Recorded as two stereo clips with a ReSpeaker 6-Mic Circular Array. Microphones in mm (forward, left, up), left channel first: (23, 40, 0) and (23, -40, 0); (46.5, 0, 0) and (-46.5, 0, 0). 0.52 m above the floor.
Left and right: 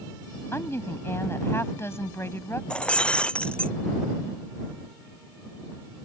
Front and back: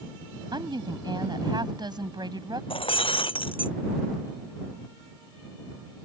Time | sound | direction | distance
0.5 | a woman speaking | 145° left | ?
2.7 | breaking glass | 15° left | ?